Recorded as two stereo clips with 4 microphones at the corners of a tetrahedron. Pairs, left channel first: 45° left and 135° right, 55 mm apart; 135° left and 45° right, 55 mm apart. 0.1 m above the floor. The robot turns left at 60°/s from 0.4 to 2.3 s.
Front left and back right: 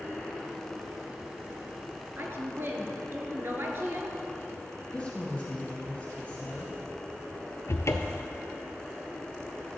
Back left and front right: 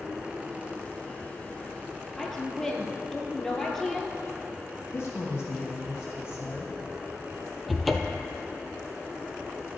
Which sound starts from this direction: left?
A woman speaking, at 4.9 s.